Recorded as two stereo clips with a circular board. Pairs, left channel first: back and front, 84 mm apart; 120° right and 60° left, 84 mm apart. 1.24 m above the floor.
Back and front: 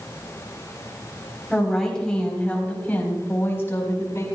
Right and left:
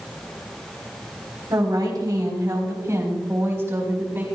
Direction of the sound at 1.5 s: 95° left.